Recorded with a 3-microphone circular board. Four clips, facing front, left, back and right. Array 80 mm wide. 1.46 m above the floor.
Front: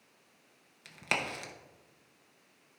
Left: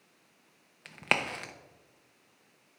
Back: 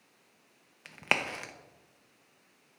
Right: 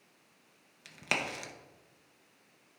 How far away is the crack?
About 0.7 m.